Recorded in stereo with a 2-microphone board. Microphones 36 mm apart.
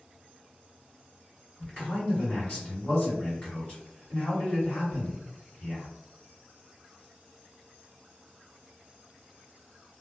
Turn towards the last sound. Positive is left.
turn(degrees=25)  # may be behind; listen again after turning